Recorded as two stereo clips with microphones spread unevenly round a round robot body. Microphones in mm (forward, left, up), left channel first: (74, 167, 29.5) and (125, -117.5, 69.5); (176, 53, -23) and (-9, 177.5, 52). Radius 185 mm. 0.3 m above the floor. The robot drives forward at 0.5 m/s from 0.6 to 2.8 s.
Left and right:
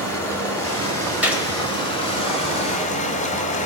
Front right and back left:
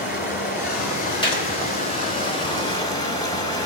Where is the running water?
20° left, 2.5 m; by 3.7 s 35° left, 1.3 m.